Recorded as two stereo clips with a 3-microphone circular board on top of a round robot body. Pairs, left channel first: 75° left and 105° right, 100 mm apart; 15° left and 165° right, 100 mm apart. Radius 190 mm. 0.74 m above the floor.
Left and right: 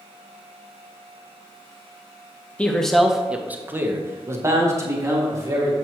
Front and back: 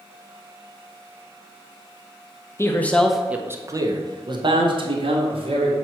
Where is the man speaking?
10° left, 0.9 m; by 5.7 s 160° right, 2 m.